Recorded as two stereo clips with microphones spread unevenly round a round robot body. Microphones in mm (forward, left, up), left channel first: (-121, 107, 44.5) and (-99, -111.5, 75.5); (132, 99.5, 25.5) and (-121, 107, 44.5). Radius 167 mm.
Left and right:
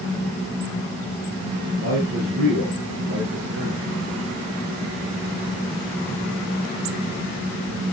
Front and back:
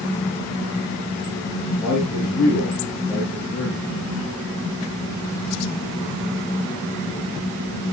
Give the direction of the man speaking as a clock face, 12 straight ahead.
3 o'clock.